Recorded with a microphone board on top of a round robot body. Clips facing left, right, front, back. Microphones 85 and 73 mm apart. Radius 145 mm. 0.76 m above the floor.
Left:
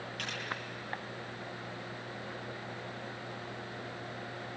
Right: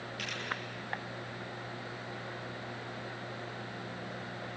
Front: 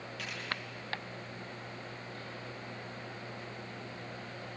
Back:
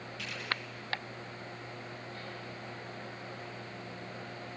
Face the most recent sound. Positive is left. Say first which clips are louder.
# even, even
turn(degrees=40)